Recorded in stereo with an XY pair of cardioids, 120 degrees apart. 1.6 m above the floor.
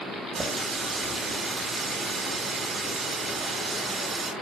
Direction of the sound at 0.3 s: 35° right.